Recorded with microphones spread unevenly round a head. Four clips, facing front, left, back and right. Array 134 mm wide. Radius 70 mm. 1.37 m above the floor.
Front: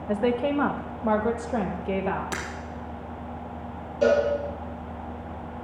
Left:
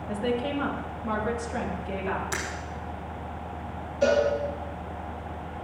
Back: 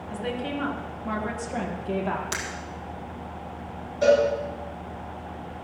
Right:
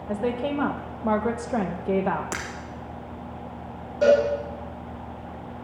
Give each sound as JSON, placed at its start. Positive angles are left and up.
{"t": 0.1, "sound": "a woman speaking", "azimuth_deg": -20, "distance_m": 1.4}
{"t": 2.3, "sound": "breaking glass", "azimuth_deg": -65, "distance_m": 2.5}
{"t": 4.0, "sound": "a cowbell", "azimuth_deg": -60, "distance_m": 7.5}